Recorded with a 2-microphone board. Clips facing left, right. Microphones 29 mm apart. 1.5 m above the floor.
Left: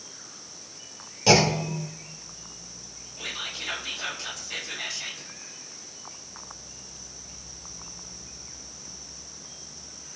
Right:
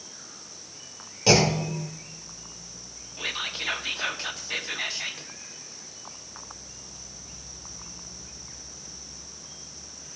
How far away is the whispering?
About 1.4 m.